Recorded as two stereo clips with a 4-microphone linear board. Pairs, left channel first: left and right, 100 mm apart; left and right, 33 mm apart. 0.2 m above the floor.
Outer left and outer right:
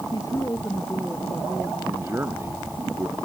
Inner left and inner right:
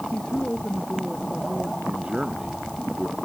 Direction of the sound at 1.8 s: 25° right (ahead or behind).